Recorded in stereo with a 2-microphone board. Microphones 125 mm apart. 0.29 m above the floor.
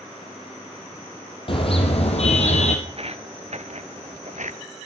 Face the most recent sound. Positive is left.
turn(degrees=-65)  # may be behind; listen again after turning